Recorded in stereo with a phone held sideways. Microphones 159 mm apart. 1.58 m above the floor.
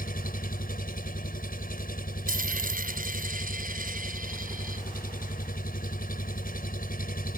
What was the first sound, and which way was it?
An engine running, 75° left (ahead or behind).